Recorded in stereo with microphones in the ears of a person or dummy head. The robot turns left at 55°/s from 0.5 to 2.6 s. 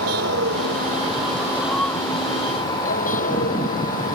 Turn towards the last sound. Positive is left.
turn(degrees=130)